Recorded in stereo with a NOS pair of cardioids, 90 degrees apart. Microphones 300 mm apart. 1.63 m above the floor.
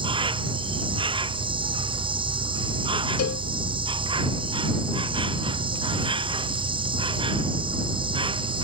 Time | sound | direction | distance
0.0 | an insect | 15° right | ?
3.2 | a cowbell | 50° left | ?